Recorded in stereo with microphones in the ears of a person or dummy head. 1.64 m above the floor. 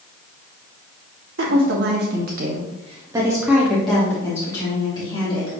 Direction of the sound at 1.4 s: 75° right (ahead or behind).